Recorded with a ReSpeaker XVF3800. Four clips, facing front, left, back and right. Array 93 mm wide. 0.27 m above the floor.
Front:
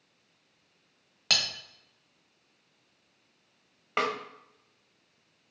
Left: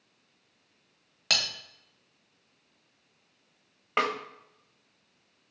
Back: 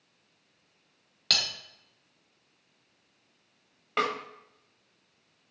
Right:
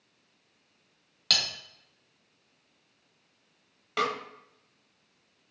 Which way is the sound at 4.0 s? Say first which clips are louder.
Left 1 dB, back 1 dB; 70° left.